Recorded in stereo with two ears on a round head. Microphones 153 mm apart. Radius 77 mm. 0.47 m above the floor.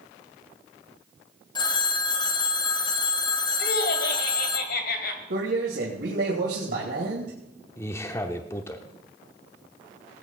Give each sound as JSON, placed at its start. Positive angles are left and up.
{"t": 1.6, "sound": "a phone ringing", "side_deg": 25, "distance_m": 1.3}
{"t": 3.6, "sound": "laughter", "side_deg": 65, "distance_m": 2.0}
{"t": 5.3, "sound": "a man speaking", "side_deg": -65, "distance_m": 2.5}
{"t": 7.8, "sound": "a man speaking", "side_deg": 15, "distance_m": 0.7}